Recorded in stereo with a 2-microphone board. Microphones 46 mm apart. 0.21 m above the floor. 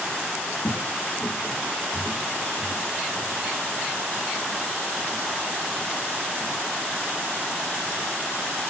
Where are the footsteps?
75° left (ahead or behind), 0.5 m; by 6.8 s 20° left (ahead or behind), 3.5 m.